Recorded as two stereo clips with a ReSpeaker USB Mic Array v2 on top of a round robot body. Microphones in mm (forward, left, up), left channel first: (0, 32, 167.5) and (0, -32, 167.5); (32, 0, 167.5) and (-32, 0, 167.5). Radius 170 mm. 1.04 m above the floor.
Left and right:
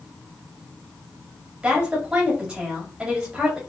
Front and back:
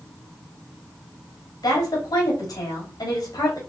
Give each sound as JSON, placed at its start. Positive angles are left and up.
{"t": 1.6, "sound": "a woman speaking", "azimuth_deg": -10, "distance_m": 2.5}